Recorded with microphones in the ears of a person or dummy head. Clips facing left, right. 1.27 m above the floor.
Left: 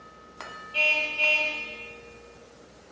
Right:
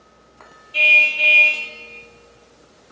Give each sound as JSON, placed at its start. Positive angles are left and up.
{"t": 0.7, "sound": "a car horn", "side_deg": -35, "distance_m": 4.5}